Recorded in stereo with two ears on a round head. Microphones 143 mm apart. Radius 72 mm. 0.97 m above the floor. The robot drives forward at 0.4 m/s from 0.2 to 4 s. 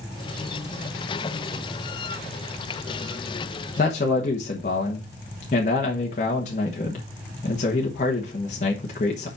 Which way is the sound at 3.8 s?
50° left (ahead or behind).